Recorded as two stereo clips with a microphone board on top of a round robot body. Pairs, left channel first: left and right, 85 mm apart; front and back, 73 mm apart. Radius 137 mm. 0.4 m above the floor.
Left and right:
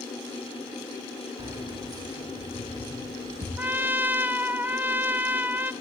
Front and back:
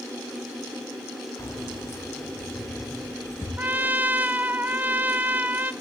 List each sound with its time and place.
1.4 s keys jangling: 50° right, 4.5 m; by 3.5 s 65° right, 6.5 m
3.6 s a trumpet: 135° right, 1.3 m